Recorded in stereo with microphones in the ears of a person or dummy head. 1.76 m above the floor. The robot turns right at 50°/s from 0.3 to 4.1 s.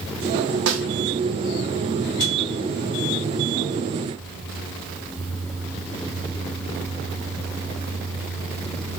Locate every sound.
0.7 s a snare drum: 75° right (ahead or behind), 0.7 m; by 0.8 s 85° right, 0.7 m